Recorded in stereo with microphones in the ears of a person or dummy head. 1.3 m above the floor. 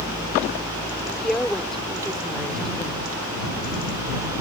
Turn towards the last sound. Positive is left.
turn(degrees=10)  # may be behind; listen again after turning